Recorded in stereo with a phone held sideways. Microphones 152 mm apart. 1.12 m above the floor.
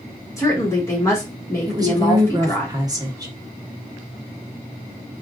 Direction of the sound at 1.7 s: 25° right (ahead or behind).